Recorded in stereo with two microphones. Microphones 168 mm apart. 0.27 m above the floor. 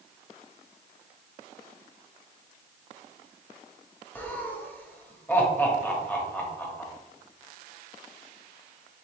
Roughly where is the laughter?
Centre.